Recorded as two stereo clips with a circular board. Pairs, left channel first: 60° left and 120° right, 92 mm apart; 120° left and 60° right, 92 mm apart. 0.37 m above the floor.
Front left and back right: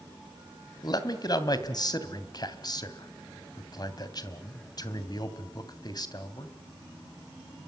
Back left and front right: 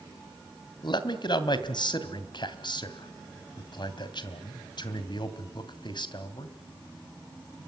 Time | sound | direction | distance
0.8 | a man speaking | 95° left | 2.5 m